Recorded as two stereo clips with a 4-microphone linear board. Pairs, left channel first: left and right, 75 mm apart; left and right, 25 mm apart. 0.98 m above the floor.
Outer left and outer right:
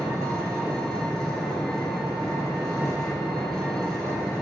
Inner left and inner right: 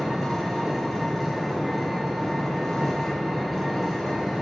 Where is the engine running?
5° left (ahead or behind), 4 m.